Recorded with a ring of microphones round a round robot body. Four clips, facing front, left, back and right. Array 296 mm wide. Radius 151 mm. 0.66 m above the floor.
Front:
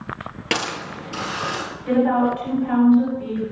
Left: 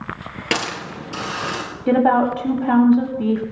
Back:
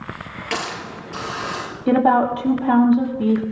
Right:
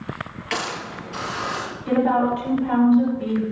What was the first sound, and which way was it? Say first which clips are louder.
A hiss: left 3 dB, front 1 dB; 55° left.